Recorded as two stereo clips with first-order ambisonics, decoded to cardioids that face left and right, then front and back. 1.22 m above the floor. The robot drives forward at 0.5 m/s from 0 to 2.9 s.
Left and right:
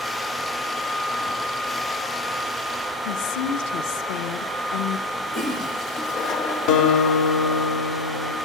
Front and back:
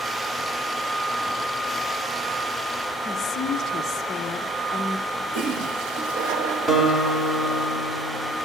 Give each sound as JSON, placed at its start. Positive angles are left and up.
{"t": 3.0, "sound": "a woman speaking", "azimuth_deg": 65, "distance_m": 0.9}
{"t": 5.3, "sound": "a toilet flushing", "azimuth_deg": 150, "distance_m": 1.5}
{"t": 6.7, "sound": "a guitar", "azimuth_deg": 105, "distance_m": 2.5}